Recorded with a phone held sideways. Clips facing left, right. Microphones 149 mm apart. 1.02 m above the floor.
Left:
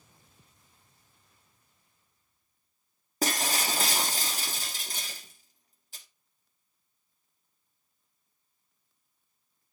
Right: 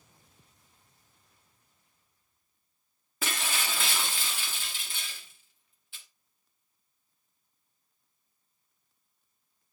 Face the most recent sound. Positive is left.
turn(degrees=40)  # may be behind; listen again after turning